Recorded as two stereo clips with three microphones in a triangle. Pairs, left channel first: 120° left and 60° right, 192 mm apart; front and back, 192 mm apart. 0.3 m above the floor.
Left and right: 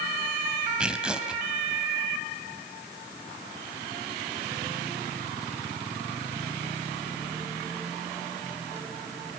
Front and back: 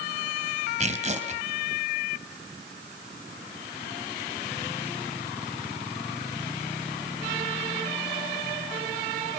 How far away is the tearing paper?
About 2.5 m.